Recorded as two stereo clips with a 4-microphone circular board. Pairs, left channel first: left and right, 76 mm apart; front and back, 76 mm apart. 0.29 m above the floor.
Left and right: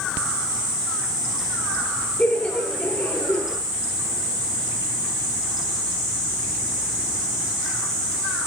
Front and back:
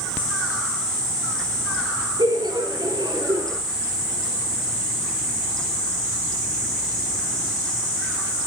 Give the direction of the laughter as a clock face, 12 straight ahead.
7 o'clock.